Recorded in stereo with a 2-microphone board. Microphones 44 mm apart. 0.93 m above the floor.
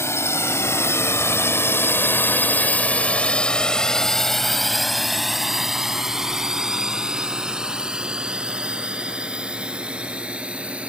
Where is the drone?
80° left; by 10.9 s 25° right (ahead or behind).